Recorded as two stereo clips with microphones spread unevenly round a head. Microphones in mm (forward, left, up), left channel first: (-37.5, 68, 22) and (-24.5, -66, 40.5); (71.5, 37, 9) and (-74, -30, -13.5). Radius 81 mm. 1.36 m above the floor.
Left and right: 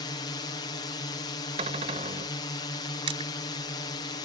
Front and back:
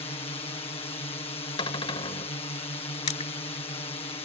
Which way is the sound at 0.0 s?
70° left.